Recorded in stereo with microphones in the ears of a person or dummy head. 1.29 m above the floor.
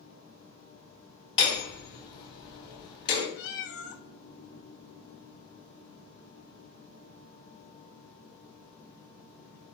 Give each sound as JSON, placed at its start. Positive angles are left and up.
{"t": 1.4, "sound": "hammering", "side_deg": 30, "distance_m": 4.5}
{"t": 3.4, "sound": "a cat meowing", "side_deg": 50, "distance_m": 0.7}